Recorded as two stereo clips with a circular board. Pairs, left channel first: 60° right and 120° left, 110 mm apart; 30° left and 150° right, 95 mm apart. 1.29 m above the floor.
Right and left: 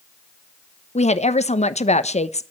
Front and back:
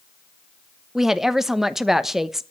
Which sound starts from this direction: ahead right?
A woman speaking, at 0.9 s.